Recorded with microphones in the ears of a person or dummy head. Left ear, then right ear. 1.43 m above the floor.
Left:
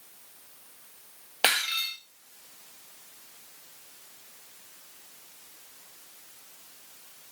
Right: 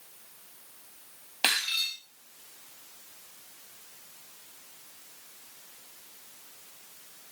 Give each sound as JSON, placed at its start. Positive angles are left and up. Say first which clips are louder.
{"t": 1.4, "sound": "breaking glass", "louder": "left 1 dB", "side_deg": 25, "distance_m": 1.5}